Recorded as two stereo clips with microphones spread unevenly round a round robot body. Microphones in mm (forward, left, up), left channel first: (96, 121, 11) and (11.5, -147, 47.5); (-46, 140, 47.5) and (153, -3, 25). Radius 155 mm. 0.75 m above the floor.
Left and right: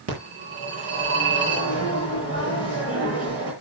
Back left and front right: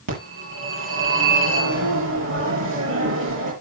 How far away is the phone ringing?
About 8.5 m.